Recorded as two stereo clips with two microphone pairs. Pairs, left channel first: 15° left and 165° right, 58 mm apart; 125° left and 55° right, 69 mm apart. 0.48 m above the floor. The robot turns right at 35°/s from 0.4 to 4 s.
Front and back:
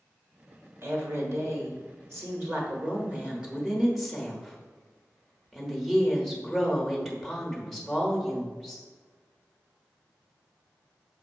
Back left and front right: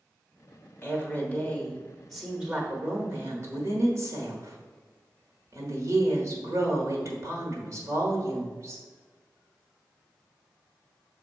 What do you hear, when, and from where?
0.8 s a woman speaking: 175° left, 1.2 m; by 8.8 s 75° right, 1.2 m